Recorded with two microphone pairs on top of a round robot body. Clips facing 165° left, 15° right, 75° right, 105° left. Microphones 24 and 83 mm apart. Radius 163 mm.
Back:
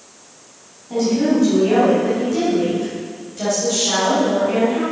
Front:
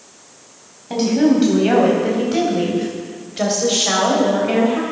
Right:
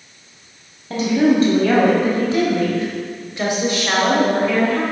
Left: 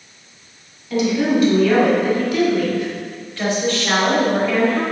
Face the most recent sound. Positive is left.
turn(degrees=10)